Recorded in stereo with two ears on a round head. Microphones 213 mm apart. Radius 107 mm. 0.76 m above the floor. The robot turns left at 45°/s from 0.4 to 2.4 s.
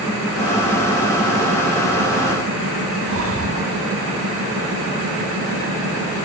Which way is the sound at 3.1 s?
65° right (ahead or behind).